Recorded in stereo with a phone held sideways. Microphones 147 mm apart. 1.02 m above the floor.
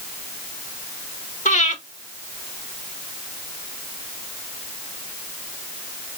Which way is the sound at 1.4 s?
55° left (ahead or behind).